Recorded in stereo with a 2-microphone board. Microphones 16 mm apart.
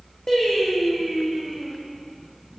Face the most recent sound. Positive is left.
turn(degrees=45)  # may be behind; listen again after turning